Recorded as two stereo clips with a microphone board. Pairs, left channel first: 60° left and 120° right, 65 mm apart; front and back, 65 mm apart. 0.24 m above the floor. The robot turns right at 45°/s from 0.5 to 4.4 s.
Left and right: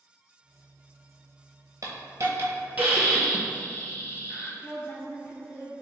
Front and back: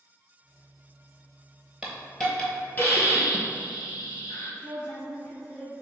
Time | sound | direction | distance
1.8 | a hiss | 105° right | 0.9 m
4.6 | a woman speaking | 10° left | 1.9 m